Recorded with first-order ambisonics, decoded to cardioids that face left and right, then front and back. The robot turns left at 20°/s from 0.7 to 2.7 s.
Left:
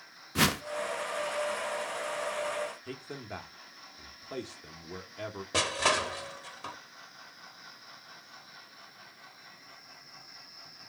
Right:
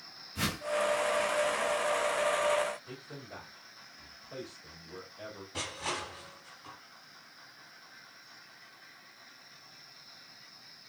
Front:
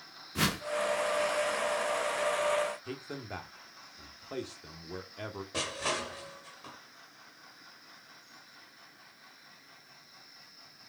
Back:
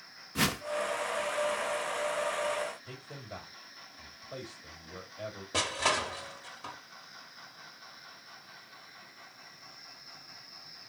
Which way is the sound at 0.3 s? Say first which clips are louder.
Left 8 dB, back 1 dB; 95° left.